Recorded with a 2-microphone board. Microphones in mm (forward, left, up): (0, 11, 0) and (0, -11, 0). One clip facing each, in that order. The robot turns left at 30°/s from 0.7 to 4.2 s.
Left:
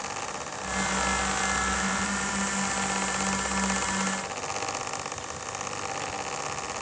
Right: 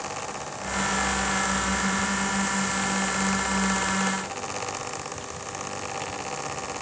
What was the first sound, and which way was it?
Only background noise.